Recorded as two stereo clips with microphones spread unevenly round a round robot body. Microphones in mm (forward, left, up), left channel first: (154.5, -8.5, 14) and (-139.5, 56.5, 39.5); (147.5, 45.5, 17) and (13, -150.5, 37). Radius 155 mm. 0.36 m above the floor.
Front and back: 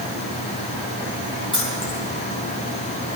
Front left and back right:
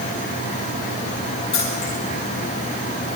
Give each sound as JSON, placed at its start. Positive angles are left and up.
{"t": 1.5, "sound": "keys jangling", "azimuth_deg": 60, "distance_m": 8.5}